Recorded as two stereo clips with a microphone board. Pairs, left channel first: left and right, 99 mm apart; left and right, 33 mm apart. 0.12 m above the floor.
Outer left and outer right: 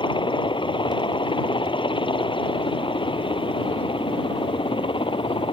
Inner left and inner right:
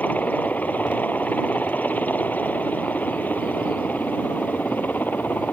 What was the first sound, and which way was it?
A helicopter, 55° left (ahead or behind).